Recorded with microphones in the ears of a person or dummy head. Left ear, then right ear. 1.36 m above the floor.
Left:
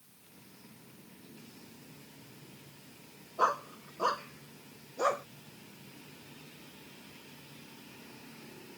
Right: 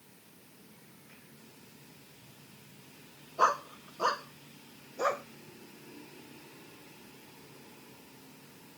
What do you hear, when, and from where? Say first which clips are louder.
3.4 s a dog barking: right 2 dB; 25° right (ahead or behind); by 5.2 s 5° right (ahead or behind)